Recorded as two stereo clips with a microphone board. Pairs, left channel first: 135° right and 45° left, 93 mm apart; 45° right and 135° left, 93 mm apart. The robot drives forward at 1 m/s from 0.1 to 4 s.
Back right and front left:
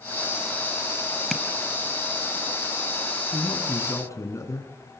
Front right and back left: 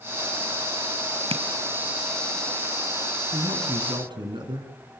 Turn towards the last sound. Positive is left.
turn(degrees=170)